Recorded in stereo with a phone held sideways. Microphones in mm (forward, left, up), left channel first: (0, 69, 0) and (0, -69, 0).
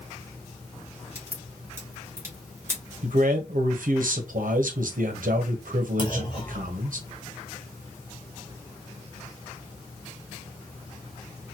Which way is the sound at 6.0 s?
35° left (ahead or behind).